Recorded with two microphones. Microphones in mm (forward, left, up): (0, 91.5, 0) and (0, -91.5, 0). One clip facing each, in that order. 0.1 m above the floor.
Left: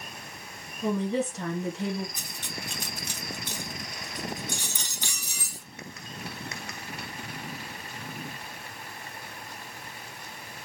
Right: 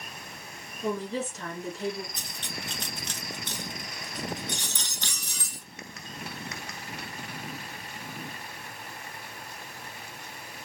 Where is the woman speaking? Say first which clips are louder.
Left 4 dB; 60° left (ahead or behind), 2.5 m.